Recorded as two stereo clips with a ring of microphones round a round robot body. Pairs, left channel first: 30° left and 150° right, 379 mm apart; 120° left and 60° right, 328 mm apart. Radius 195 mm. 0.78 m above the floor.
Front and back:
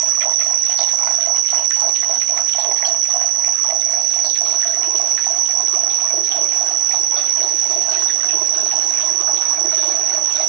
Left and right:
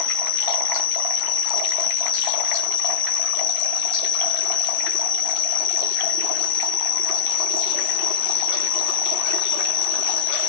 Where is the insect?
170° left, 1.0 m.